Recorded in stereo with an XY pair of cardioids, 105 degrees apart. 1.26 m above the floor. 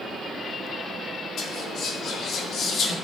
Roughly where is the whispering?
Ahead left.